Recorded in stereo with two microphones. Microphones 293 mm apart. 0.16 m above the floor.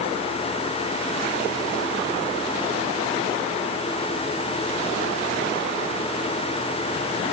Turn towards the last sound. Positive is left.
No sound to turn to.